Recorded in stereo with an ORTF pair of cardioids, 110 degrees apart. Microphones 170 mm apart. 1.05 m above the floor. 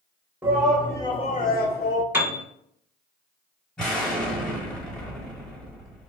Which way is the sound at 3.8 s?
5° left.